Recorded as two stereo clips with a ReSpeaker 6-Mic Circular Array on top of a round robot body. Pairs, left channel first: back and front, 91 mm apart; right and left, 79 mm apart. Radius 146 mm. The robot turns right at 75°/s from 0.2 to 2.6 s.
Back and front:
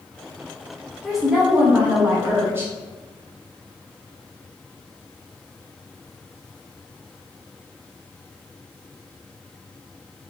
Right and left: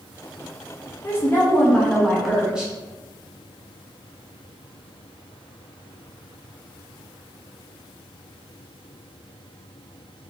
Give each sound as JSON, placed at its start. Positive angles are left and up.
{"t": 1.0, "sound": "a woman speaking", "azimuth_deg": -95, "distance_m": 1.2}